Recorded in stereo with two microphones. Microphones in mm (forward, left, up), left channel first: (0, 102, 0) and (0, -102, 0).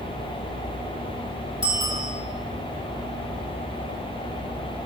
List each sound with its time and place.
1.6 s a bicycle bell: 20° right (ahead or behind), 9.5 m